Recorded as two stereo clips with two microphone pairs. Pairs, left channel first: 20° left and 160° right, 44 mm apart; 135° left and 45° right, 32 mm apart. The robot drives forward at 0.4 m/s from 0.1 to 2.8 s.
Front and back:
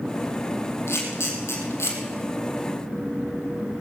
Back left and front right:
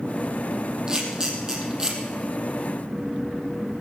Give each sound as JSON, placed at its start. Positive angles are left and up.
{"t": 0.9, "sound": "a camera shutter", "azimuth_deg": 20, "distance_m": 4.0}